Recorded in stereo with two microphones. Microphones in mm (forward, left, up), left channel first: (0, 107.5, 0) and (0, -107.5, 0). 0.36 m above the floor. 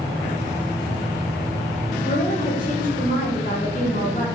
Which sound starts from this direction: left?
A woman speaking, at 2.0 s.